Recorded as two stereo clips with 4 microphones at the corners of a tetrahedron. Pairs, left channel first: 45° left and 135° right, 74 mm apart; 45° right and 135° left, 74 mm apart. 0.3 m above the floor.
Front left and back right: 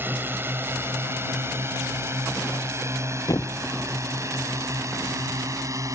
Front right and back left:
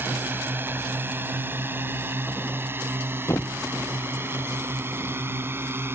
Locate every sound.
0.0 s a drone: straight behind; by 6.0 s 170° right
3.3 s a thud: 5° left